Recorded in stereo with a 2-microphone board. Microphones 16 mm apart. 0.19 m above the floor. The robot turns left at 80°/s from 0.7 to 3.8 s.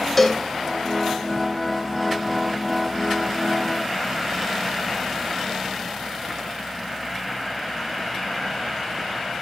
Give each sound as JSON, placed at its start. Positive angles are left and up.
{"t": 0.2, "sound": "a cowbell", "side_deg": 10, "distance_m": 0.9}